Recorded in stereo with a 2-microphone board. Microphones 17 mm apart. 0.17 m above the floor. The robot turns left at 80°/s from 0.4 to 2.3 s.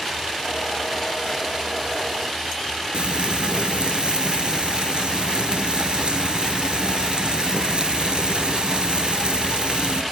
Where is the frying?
55° right (ahead or behind), 1.0 m.